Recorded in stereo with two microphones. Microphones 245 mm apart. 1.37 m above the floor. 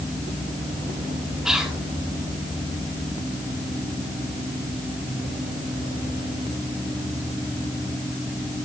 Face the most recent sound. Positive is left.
turn(degrees=0)  # may be behind; listen again after turning